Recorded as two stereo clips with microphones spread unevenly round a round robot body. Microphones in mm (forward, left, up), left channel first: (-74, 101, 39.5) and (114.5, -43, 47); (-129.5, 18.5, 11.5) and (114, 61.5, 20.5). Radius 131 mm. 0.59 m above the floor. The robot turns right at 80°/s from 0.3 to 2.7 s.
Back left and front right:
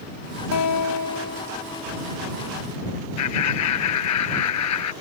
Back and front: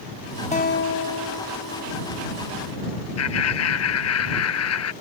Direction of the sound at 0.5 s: 125° left.